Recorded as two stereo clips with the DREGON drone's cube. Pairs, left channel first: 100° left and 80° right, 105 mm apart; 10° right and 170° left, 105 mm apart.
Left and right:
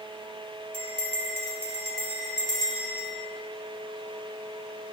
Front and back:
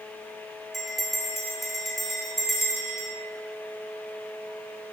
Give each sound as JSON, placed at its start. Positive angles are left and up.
{"t": 0.7, "sound": "a bell", "azimuth_deg": -100, "distance_m": 1.8}